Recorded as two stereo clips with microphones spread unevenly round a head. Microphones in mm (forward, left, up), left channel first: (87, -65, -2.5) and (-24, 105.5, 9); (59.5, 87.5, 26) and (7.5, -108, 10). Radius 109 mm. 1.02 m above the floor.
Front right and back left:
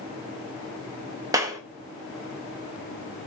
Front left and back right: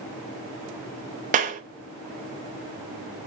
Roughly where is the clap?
Behind.